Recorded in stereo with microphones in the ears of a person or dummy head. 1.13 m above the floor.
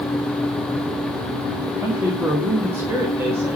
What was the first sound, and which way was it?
A man speaking, 10° right (ahead or behind).